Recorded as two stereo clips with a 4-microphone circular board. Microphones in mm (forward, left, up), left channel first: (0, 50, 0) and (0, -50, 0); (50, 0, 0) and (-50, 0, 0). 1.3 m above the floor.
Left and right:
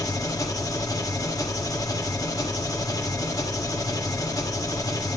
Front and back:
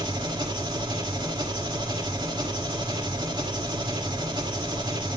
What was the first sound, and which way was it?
An engine running, 140° left.